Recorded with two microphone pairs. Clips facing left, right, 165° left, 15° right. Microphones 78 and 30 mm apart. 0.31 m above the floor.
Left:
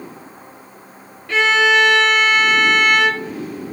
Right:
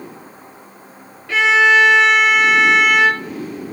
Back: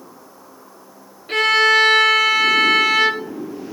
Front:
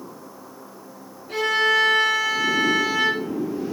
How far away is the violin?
About 0.8 m.